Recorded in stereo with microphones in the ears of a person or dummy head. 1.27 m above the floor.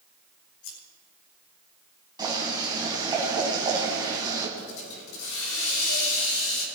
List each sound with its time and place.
0.6 s scissors: 85° left, 6 m
2.2 s boiling: 25° right (ahead or behind), 4 m
4.6 s a hiss: 80° left, 5 m